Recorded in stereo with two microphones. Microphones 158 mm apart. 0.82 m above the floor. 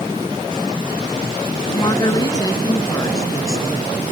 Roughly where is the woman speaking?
Left.